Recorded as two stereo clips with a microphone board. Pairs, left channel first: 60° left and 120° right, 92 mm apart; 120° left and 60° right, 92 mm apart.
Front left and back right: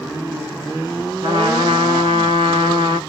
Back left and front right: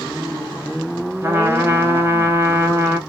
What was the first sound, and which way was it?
A trumpet, 120° right.